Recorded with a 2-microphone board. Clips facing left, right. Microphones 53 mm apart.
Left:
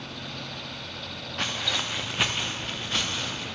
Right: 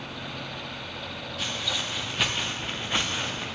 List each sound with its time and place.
1.4 s footsteps: 50° left (ahead or behind), 1.8 m; by 3.5 s 30° right (ahead or behind), 3 m